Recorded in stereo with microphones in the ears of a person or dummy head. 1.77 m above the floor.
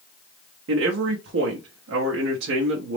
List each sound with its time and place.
0.7 s a man speaking: 60° right (ahead or behind), 0.7 m